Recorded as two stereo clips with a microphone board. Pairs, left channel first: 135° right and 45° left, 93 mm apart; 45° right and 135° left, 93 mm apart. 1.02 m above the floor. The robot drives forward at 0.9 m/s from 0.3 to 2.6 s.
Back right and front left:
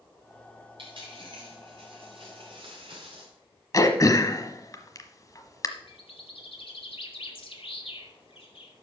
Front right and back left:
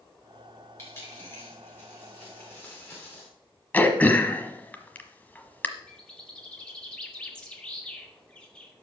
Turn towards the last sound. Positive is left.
turn(degrees=-125)